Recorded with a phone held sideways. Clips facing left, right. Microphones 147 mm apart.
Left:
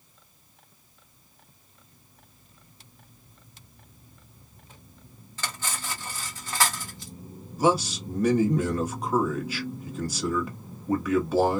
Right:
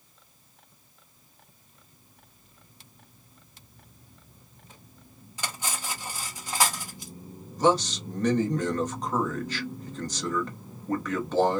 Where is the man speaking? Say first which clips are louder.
Even; 10° left (ahead or behind), 1.4 m.